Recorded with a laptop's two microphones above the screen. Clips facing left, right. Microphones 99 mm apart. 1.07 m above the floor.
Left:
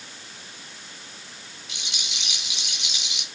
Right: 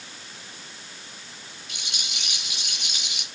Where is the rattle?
50° right (ahead or behind), 6 m.